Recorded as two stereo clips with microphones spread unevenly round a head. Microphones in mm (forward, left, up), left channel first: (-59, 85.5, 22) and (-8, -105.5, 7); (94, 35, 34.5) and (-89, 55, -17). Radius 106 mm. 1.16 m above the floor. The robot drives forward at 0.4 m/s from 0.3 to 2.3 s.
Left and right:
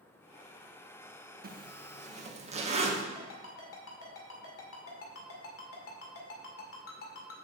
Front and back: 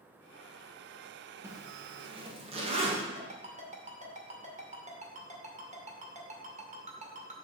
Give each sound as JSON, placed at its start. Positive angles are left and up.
{"t": 1.4, "sound": "a zipper", "azimuth_deg": -115, "distance_m": 1.0}
{"t": 3.1, "sound": "a ringtone", "azimuth_deg": 120, "distance_m": 2.0}